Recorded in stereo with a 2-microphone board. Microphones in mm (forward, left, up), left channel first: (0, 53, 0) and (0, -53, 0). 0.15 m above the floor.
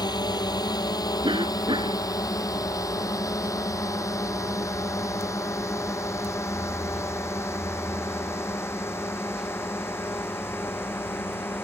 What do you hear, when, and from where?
0.0 s a drone: 40° left (ahead or behind); by 11.7 s 20° left (ahead or behind)
1.2 s a cough: 50° right (ahead or behind)